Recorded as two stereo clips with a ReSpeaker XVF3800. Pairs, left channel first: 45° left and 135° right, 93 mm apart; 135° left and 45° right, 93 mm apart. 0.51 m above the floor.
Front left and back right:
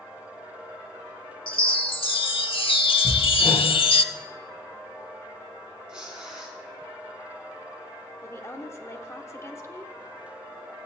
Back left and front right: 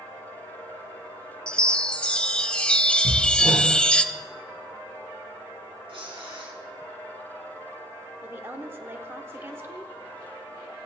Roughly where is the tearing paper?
Ahead right.